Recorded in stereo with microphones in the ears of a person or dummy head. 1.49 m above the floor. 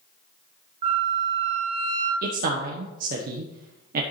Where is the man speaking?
60° right (ahead or behind), 1.0 m.